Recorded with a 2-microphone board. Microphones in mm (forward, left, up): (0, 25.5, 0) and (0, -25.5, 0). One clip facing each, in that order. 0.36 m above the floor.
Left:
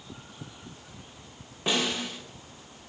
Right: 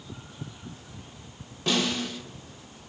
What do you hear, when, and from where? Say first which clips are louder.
1.7 s a snare drum: right 1 dB; 20° left (ahead or behind), 1.5 m